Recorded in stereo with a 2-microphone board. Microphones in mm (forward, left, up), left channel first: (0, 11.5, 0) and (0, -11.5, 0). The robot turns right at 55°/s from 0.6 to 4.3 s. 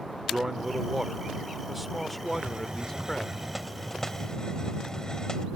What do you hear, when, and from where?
0.3 s a man speaking: 30° right (ahead or behind); by 3.3 s 25° left (ahead or behind)
2.3 s a hiss: 80° right; by 5.5 s 35° left